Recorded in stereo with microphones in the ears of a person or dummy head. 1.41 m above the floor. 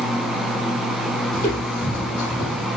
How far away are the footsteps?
About 3.5 m.